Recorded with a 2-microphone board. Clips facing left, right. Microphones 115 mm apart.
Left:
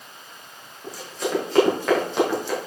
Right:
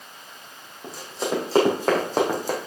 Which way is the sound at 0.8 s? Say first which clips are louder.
Even; 30° right (ahead or behind).